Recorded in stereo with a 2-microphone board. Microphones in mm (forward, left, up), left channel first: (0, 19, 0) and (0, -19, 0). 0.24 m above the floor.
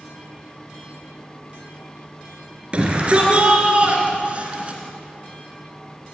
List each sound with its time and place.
2.7 s a shout: 30° right (ahead or behind), 4 m; by 4.8 s 35° right (ahead or behind), 3 m